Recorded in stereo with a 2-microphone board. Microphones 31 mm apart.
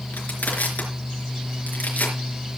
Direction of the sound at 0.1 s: 65° left (ahead or behind).